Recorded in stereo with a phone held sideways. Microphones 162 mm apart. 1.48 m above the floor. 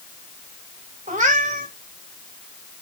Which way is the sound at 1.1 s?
50° right (ahead or behind).